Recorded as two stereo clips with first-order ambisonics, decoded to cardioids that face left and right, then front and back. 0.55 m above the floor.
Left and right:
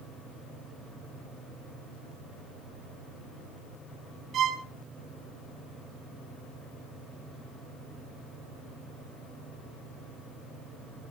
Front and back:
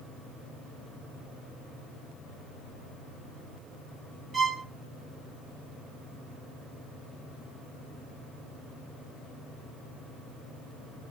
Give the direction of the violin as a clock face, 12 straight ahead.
4 o'clock.